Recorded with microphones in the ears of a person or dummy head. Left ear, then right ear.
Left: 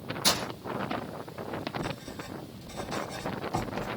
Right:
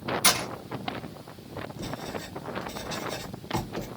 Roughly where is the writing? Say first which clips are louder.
Right 2 dB; right.